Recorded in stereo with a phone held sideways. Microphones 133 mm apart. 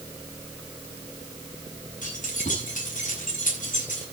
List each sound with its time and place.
2.0 s keys jangling: 85° left, 8 m